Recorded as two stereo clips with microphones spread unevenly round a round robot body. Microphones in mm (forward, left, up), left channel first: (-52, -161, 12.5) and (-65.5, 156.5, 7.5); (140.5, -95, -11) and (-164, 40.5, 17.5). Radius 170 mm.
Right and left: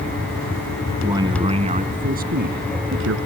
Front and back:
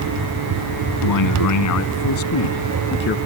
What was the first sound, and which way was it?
A man speaking, 10° left.